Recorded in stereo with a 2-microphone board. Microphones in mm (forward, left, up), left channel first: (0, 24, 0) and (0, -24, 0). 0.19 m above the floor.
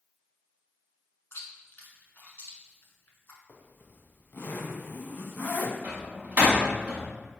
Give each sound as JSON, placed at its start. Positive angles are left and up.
{"t": 1.3, "sound": "chewing", "side_deg": 55, "distance_m": 0.7}
{"t": 3.5, "sound": "a zipper", "side_deg": 45, "distance_m": 0.5}
{"t": 5.8, "sound": "a door slam", "side_deg": -35, "distance_m": 0.9}